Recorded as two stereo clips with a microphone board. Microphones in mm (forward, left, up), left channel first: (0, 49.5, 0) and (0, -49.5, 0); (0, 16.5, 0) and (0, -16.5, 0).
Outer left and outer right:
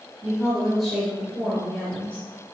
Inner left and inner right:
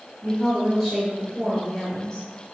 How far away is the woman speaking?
About 1.6 m.